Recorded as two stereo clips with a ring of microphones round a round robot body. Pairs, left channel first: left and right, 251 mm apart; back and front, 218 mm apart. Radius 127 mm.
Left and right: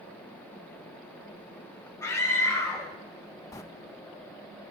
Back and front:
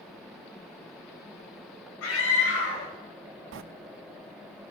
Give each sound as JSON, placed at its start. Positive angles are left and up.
{"t": 2.0, "sound": "a scream", "azimuth_deg": 170, "distance_m": 3.5}
{"t": 3.5, "sound": "a sliding door", "azimuth_deg": 15, "distance_m": 0.6}